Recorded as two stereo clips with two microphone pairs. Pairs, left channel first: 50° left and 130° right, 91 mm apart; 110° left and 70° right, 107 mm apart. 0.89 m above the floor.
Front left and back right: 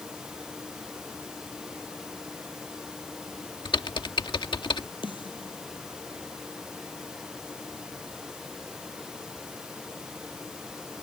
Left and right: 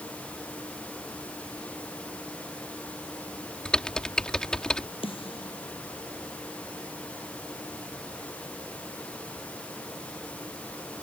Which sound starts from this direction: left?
A snare drum, at 5.0 s.